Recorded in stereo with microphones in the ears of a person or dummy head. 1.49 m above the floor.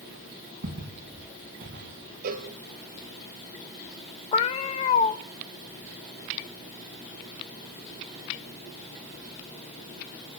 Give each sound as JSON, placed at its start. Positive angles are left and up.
{"t": 0.6, "sound": "footsteps", "side_deg": -65, "distance_m": 5.5}
{"t": 2.2, "sound": "a cowbell", "side_deg": -50, "distance_m": 1.3}
{"t": 4.3, "sound": "a cat meowing", "side_deg": 20, "distance_m": 0.8}